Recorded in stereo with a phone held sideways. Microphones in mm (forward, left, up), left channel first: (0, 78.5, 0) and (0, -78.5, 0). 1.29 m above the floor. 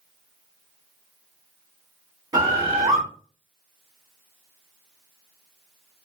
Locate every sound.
2.3 s a bird: 20° right (ahead or behind), 1.0 m